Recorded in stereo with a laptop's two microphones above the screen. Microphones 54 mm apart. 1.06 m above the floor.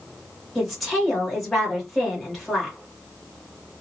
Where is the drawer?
I don't hear a drawer.